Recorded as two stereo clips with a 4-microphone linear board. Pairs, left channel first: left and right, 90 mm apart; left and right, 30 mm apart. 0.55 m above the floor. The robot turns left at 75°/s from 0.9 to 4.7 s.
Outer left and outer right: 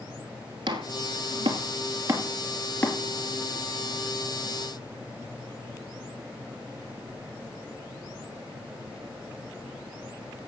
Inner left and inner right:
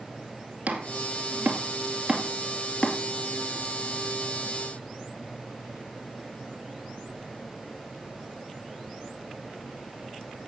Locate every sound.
0.7 s chopping: 55° right (ahead or behind), 2.5 m; by 3.0 s 30° left (ahead or behind), 2.5 m